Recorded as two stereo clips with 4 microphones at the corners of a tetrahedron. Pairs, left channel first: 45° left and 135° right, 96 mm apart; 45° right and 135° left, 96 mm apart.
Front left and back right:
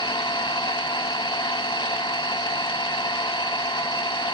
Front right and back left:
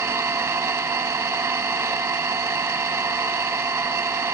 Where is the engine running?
80° left, 0.7 m.